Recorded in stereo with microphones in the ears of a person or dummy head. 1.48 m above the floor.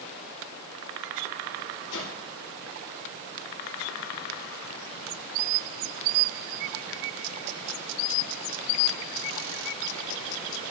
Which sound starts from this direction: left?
A whoosh, at 1.9 s.